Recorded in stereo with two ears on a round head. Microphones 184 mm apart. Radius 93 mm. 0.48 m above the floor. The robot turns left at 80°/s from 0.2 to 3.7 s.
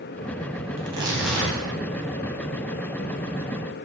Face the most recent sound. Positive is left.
turn(degrees=-10)